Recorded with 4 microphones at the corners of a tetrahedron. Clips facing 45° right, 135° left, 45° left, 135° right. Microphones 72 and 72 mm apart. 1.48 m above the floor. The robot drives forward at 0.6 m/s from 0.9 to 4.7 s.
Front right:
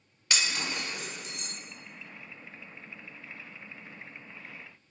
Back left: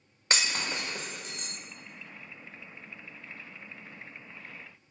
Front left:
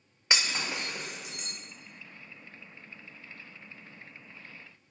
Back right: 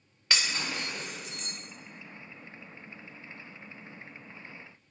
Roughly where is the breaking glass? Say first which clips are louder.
Back left 1 dB, front left 1 dB; left.